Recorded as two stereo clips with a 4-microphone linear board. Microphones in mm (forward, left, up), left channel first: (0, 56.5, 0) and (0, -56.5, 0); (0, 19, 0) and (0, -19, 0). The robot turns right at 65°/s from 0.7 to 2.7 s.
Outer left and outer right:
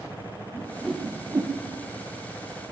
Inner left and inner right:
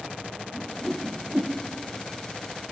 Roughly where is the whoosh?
Centre.